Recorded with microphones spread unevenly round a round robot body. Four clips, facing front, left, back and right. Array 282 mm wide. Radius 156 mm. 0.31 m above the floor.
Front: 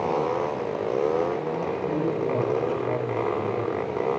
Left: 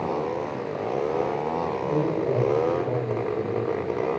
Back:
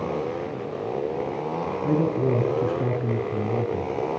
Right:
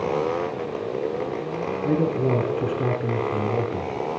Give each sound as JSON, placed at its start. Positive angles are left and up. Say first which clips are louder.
{"t": 1.8, "sound": "a man speaking", "louder": "right 4 dB, back 5 dB", "azimuth_deg": -140, "distance_m": 8.0}